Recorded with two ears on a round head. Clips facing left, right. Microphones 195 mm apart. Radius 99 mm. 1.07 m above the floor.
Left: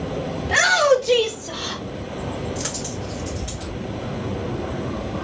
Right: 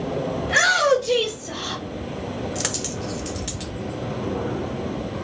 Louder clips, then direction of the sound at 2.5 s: Even; 75° right (ahead or behind).